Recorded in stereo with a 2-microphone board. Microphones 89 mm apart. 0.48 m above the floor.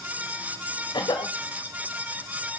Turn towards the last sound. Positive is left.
turn(degrees=60)  # may be behind; listen again after turning